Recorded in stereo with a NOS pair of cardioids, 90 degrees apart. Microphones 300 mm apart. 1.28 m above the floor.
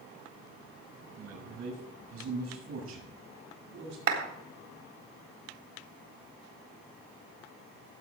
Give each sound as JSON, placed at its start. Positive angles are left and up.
{"t": 1.2, "sound": "a man speaking", "azimuth_deg": -55, "distance_m": 7.0}
{"t": 4.1, "sound": "a clap", "azimuth_deg": -55, "distance_m": 4.0}